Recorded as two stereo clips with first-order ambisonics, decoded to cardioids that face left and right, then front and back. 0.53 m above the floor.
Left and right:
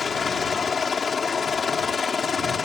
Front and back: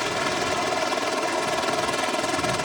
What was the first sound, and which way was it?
A helicopter, 80° left.